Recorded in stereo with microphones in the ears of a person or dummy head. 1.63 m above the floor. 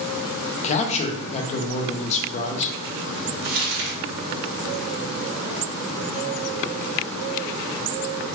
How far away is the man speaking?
About 0.5 m.